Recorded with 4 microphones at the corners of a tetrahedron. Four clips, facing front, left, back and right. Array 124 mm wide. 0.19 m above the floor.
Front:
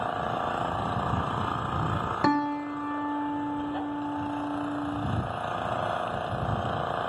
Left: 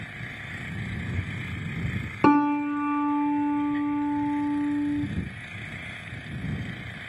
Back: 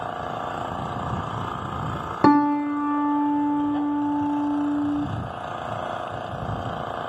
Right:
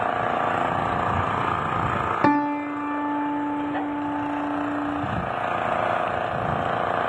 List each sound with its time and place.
0.0 s an engine running: 85° right
2.2 s a piano: 165° left